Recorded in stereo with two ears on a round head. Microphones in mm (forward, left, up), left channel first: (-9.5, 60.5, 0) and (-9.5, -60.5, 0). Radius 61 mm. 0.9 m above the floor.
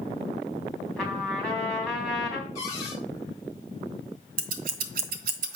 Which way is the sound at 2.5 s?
25° left (ahead or behind).